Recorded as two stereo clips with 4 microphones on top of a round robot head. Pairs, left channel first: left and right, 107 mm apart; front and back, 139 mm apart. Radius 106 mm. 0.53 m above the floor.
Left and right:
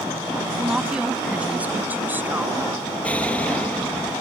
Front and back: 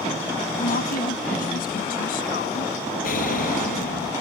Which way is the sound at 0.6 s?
5° right.